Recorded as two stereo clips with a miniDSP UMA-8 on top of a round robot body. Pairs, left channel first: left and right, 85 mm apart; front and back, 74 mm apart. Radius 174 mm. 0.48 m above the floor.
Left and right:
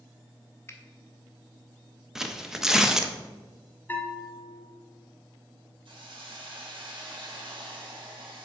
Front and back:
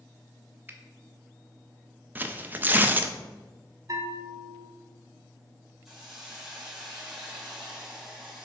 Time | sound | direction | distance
0.7 | a finger snap | 130° left | 1.0 m
2.1 | tearing paper | 170° right | 0.8 m
3.9 | a bell | 155° left | 0.9 m
5.8 | a hiss | 95° right | 2.0 m